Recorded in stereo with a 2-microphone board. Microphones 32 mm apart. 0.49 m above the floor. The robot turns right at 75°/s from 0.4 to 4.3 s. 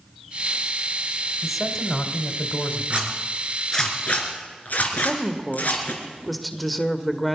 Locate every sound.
1.4 s a man speaking: 15° right, 1.5 m; by 3.9 s 170° left, 1.5 m
2.9 s a zipper: 45° right (ahead or behind), 3 m; by 5.9 s 60° left (ahead or behind), 3 m
4.9 s a woman speaking: 5° left (ahead or behind), 1.3 m